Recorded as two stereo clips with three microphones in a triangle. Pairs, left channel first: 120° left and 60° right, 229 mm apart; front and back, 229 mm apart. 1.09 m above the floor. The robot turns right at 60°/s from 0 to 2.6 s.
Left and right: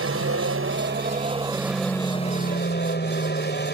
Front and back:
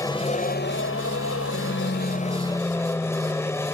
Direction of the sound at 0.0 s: 75° right.